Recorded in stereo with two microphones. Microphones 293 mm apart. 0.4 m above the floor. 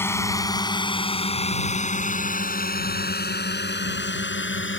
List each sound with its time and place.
0.0 s a drone: 10° left (ahead or behind); by 4.8 s 40° left (ahead or behind)